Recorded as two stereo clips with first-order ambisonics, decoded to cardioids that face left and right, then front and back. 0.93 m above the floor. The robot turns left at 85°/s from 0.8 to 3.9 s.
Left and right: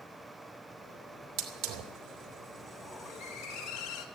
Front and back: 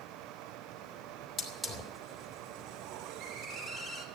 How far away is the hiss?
About 2.5 m.